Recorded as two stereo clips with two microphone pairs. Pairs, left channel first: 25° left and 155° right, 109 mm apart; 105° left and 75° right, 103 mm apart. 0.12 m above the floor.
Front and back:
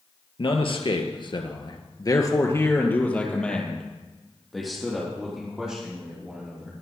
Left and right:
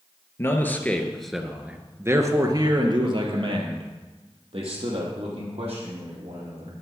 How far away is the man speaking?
About 2 m.